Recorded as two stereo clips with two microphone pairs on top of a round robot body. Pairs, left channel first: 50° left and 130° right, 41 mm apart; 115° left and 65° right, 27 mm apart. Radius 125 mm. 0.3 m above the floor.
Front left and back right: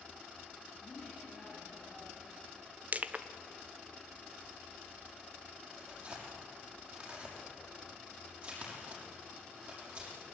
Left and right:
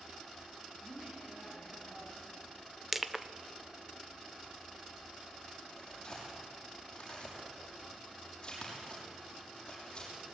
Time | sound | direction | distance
0.8 | a woman speaking | 30° right | 6.5 m
2.9 | crushing | 110° right | 1.2 m
5.7 | tearing paper | straight behind | 6 m